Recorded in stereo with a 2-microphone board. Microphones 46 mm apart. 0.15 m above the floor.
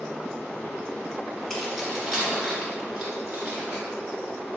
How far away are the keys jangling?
About 1.1 m.